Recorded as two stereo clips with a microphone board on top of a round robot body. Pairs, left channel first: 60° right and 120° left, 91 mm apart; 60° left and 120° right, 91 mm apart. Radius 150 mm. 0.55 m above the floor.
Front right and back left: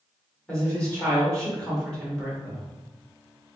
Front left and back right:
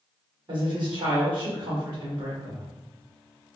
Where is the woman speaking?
140° right, 2.0 m.